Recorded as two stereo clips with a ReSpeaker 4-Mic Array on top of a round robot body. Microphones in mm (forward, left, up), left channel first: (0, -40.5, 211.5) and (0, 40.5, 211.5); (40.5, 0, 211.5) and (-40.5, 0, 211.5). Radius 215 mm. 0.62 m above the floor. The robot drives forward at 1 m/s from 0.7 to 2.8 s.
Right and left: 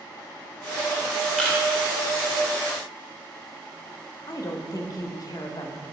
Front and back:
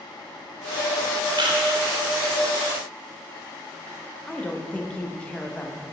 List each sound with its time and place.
1.4 s a camera shutter: 170° right, 1.7 m
4.3 s a woman speaking: 70° right, 1.3 m